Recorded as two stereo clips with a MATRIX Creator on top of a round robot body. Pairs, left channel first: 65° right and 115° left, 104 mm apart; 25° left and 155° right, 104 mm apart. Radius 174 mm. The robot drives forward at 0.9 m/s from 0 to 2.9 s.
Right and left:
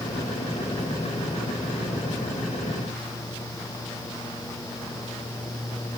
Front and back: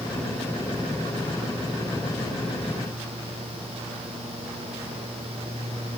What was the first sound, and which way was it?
Only background noise.